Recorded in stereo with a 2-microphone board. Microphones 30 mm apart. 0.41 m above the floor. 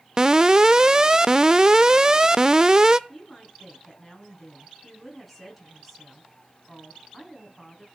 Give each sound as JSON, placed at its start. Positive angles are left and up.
{"t": 0.2, "sound": "an alarm", "side_deg": -25, "distance_m": 0.6}
{"t": 3.1, "sound": "a woman speaking", "side_deg": -5, "distance_m": 4.0}